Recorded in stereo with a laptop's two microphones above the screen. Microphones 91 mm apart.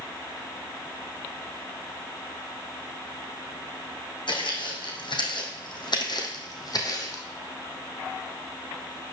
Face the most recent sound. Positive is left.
turn(degrees=40)  # may be behind; listen again after turning